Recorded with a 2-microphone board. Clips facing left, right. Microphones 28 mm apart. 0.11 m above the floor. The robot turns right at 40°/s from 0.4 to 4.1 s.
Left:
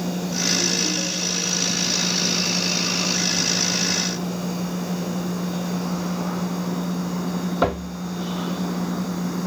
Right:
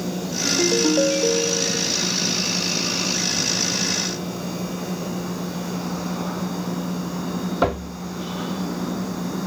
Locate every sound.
0.5 s a ringtone: 135° right; by 1.9 s 75° right